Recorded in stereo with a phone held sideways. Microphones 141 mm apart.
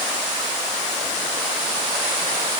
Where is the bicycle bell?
I don't hear a bicycle bell.